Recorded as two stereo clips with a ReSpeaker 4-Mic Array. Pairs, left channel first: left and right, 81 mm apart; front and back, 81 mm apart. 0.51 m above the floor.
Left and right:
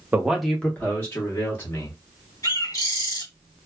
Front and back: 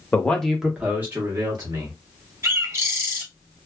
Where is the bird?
130° left, 1.3 m.